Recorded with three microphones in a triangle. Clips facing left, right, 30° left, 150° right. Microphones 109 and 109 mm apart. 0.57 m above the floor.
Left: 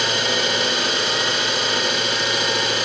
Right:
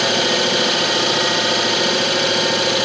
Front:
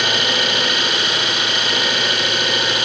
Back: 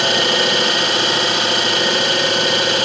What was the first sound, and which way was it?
An engine running, 95° right.